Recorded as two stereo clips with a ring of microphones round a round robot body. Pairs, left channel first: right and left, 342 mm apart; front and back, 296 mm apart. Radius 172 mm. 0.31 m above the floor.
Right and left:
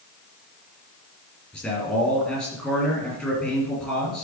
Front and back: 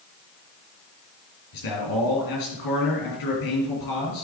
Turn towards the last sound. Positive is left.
turn(degrees=0)